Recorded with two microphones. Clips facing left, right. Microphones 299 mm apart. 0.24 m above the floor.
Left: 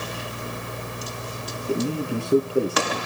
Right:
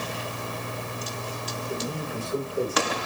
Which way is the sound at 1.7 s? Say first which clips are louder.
Left 9 dB; 65° left (ahead or behind).